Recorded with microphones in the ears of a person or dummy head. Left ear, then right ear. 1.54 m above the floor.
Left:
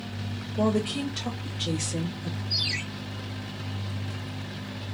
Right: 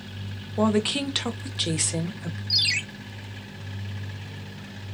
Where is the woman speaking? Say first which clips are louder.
Right 3 dB; 30° right (ahead or behind), 0.6 m; by 2.4 s 40° right (ahead or behind), 0.9 m.